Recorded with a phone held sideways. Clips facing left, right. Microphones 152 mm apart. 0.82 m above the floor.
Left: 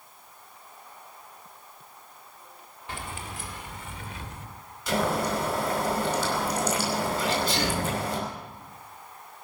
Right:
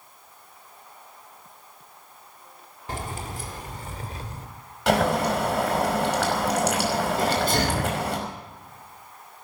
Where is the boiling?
70° right (ahead or behind), 5 m.